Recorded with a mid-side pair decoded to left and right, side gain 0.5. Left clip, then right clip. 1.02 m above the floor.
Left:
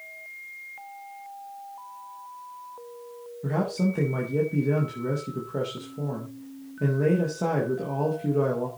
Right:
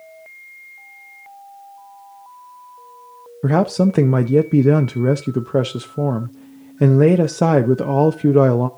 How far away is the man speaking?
About 0.6 m.